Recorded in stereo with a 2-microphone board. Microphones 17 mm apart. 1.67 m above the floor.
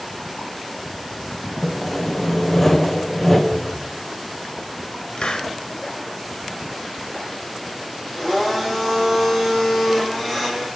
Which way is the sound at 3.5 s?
20° right (ahead or behind).